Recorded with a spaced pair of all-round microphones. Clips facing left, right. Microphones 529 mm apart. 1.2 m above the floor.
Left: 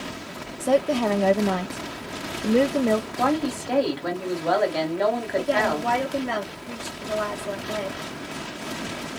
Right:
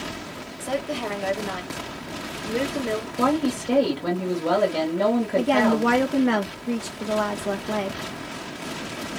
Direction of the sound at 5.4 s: 80° right.